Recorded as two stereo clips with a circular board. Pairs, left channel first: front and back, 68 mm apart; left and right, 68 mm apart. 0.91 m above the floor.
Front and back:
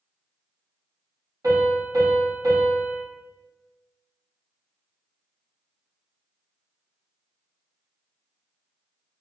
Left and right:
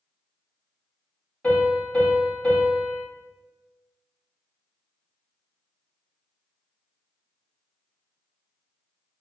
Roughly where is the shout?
No shout in this recording.